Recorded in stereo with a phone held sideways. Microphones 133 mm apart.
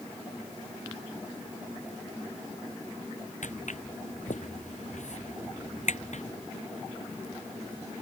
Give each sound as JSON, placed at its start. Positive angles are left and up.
{"t": 3.4, "sound": "footsteps", "side_deg": 75}